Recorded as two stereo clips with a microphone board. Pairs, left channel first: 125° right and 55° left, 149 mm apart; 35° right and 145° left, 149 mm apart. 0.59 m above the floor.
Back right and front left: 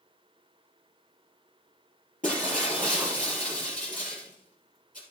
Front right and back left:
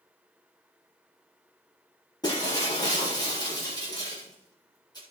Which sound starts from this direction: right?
Breaking glass, at 2.2 s.